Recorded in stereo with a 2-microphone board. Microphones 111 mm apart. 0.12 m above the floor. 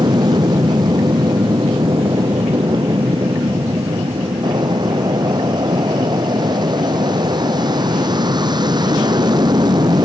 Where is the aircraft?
40° right (ahead or behind).